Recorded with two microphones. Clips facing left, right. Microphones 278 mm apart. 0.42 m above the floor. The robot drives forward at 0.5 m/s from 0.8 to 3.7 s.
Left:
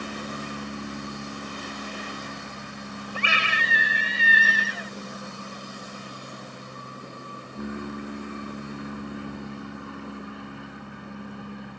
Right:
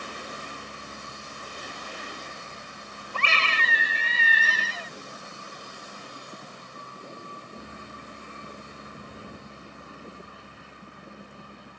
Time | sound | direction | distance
0.0 | an aircraft | 75° left (ahead or behind) | ?
3.1 | a scream | 15° left (ahead or behind) | ?